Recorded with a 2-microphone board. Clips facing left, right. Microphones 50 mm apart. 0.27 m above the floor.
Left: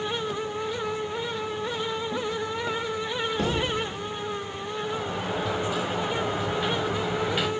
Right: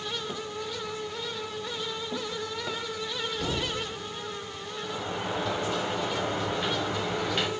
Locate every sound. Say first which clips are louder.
3.4 s a thud: left 5 dB; 70° left (ahead or behind), 2.5 m
4.8 s a sliding door: left 1 dB; 5° left (ahead or behind), 0.8 m